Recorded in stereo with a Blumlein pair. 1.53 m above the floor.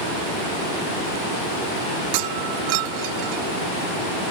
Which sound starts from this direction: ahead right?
Breaking glass, at 2.1 s.